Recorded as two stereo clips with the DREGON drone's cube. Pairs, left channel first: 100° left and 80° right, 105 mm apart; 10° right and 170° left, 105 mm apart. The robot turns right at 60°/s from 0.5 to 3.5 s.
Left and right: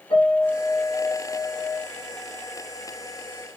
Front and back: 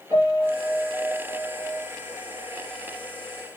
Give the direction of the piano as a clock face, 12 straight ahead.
8 o'clock.